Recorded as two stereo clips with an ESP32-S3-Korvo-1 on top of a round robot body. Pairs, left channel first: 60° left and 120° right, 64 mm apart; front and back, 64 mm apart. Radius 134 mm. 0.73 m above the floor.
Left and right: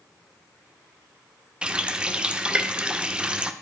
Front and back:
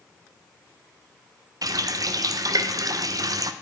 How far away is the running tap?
About 0.7 m.